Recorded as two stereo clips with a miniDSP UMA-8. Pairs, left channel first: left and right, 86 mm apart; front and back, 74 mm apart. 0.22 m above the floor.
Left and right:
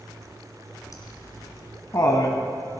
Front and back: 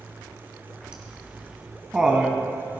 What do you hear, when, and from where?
0.9 s laughter: 105° left, 1.6 m